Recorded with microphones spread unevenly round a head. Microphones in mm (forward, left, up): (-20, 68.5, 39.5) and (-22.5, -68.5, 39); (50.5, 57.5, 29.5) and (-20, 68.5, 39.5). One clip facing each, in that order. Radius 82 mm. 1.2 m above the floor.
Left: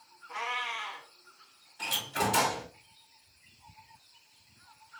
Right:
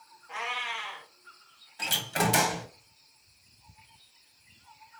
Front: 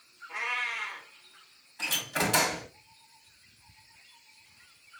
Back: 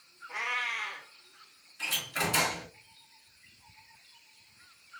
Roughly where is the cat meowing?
Behind right.